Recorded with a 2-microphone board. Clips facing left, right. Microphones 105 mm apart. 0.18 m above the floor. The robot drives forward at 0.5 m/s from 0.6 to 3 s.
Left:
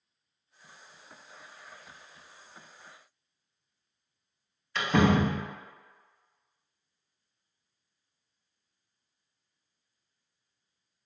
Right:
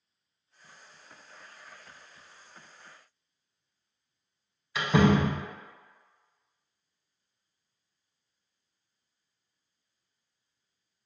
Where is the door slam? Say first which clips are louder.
Right 1 dB; 10° right (ahead or behind), 0.8 m.